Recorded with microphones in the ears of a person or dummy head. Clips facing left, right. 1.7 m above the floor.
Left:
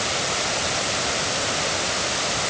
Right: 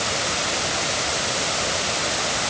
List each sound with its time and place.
Only background noise.